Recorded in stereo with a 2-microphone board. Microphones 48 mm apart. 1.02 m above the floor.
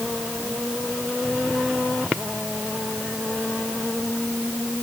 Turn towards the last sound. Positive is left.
No sound to turn to.